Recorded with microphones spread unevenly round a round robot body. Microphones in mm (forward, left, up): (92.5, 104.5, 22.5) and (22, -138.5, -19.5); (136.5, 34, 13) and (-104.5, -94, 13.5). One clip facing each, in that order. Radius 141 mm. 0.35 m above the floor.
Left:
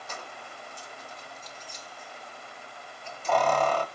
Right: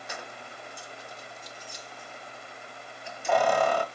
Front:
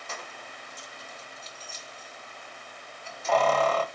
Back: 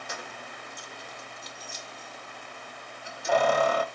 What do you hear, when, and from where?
0.1 s keys jangling: 100° right, 0.5 m